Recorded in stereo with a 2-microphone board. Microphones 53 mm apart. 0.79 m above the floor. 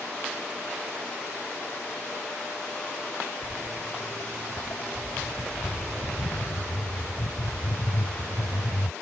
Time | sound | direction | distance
3.4 | footsteps | 65° left (ahead or behind) | ?